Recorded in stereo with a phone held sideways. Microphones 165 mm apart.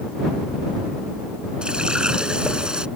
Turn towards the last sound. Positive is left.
turn(degrees=-5)  # may be behind; listen again after turning